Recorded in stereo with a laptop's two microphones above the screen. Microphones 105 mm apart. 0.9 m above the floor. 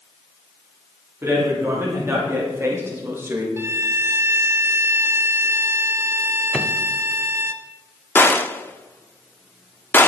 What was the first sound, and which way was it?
A man speaking, 25° right (ahead or behind).